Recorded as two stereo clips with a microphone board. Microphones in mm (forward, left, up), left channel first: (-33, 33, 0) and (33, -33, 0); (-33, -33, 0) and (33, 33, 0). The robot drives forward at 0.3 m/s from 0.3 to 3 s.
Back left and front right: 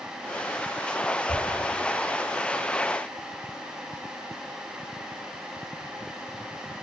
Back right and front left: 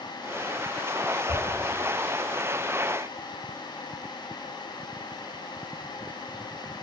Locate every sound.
1.3 s a whoosh: 100° left, 3.5 m